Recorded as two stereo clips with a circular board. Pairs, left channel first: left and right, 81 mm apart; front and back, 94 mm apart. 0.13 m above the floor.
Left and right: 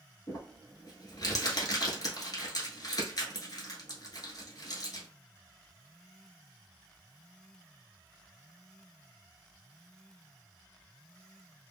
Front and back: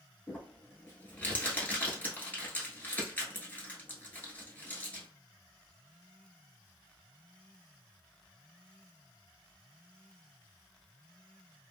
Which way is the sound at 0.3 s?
65° left.